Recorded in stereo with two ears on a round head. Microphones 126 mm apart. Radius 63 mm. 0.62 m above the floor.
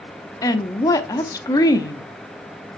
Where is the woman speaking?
25° left (ahead or behind), 0.7 m.